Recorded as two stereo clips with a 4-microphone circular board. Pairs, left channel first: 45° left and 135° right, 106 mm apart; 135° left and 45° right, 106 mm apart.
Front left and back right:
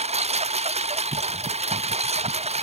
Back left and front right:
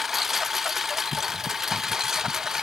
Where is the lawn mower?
135° right; by 2.6 s 130° right.